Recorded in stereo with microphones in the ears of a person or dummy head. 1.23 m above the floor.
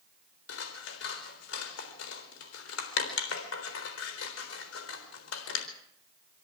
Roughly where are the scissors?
Left.